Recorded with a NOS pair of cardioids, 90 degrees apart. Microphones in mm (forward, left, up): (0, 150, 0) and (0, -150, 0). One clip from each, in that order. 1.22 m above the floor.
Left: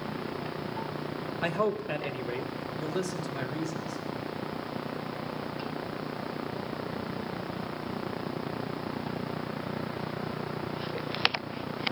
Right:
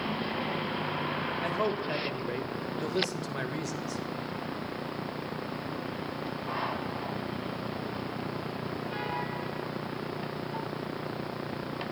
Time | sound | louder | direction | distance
1.4 | a man speaking | left 4 dB | 25° left | 1.9 m